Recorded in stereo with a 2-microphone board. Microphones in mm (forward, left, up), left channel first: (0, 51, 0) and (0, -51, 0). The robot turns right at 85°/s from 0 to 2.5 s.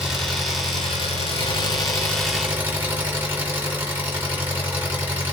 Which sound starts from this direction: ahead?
An engine running, at 0.0 s.